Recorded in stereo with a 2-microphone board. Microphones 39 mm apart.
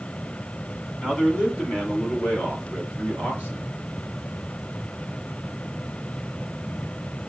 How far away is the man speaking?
About 1.8 m.